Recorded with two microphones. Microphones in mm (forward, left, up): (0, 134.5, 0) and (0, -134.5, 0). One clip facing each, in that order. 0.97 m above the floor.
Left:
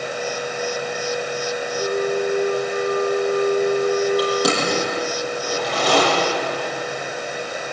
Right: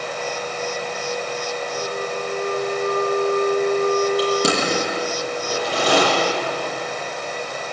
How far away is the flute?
About 8 m.